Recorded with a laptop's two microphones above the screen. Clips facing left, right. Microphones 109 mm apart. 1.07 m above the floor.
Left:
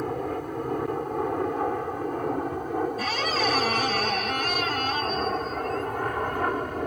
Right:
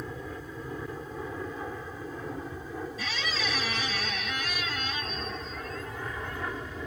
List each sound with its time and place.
0.0 s an aircraft: 60° left (ahead or behind); by 6.9 s 55° left (ahead or behind)
3.0 s a squeak: 50° left (ahead or behind)